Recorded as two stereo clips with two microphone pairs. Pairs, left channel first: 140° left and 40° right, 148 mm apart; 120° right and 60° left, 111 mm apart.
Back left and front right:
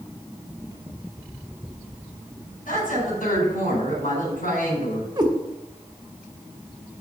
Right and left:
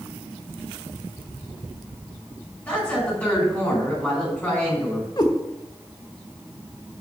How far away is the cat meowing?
About 1.2 m.